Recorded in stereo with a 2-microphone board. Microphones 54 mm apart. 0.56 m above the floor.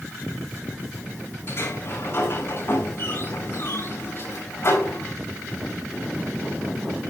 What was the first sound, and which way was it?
A sliding door, 50° left (ahead or behind).